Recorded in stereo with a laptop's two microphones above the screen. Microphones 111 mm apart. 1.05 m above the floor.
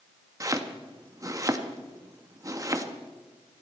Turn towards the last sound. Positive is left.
turn(degrees=-30)  # may be behind; listen again after turning